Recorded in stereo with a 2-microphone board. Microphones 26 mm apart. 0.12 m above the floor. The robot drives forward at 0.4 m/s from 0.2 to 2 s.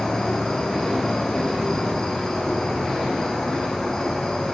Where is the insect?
15° left (ahead or behind), 7.5 m.